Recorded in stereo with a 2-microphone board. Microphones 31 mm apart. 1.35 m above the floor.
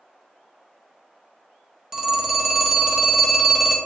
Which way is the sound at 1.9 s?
15° right (ahead or behind).